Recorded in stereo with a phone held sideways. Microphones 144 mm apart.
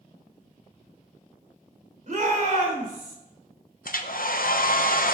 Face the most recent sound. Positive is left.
turn(degrees=75)  # may be behind; listen again after turning